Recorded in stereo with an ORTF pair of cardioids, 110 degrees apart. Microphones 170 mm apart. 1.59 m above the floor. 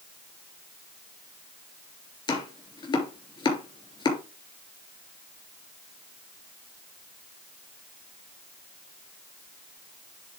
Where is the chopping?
30° left, 3 m.